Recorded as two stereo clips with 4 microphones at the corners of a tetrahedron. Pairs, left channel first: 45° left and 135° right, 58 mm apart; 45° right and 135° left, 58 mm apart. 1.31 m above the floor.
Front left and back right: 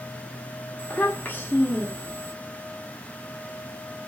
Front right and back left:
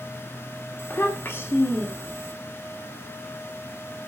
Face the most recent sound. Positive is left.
turn(degrees=-5)